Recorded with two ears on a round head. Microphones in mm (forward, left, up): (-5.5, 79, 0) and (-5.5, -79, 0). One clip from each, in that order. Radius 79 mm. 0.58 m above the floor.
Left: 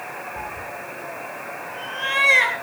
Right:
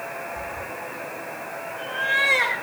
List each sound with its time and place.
0.4 s a cat meowing: 65° left (ahead or behind), 1.6 m; by 2.5 s 85° left, 5 m